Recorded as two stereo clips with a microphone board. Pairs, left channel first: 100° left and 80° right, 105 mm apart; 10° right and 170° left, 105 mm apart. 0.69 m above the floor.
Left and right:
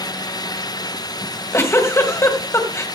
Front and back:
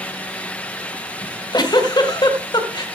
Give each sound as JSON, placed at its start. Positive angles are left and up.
{"t": 1.2, "sound": "a giggle", "azimuth_deg": 40, "distance_m": 2.0}